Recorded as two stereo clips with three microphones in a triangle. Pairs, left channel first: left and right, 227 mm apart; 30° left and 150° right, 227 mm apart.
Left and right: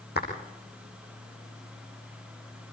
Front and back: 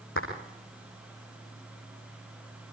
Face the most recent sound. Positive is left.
turn(degrees=50)